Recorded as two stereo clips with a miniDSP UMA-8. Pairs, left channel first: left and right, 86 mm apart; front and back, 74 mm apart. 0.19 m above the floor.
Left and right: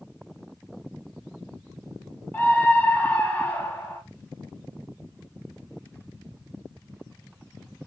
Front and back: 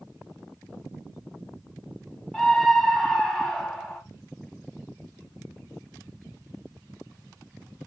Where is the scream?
70° left, 1.1 m.